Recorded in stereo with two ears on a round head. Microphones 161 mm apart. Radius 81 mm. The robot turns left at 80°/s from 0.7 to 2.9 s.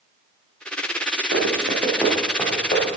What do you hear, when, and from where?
1.3 s running footsteps: 75° right (ahead or behind), 4.5 m; by 2.9 s 55° left (ahead or behind), 5 m